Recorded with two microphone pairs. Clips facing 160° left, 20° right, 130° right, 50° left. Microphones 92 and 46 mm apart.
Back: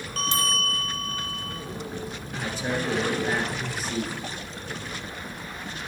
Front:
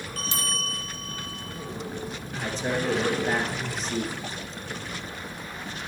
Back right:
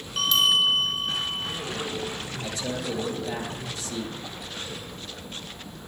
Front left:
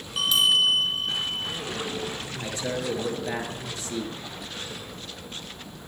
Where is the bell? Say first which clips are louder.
Back 7 dB, even; 130° left, 0.6 m.